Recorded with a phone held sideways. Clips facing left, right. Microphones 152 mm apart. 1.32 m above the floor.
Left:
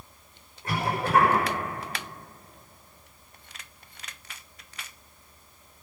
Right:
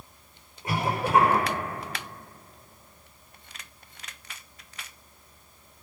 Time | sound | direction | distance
0.6 | a cough | 10° right (ahead or behind) | 5.5 m